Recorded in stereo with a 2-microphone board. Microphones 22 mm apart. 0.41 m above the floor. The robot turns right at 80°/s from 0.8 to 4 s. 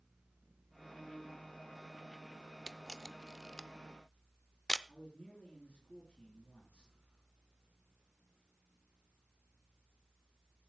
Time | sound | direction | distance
2.7 | a camera shutter | 10° left (ahead or behind) | 0.5 m
4.9 | a man speaking | 75° left (ahead or behind) | 4.5 m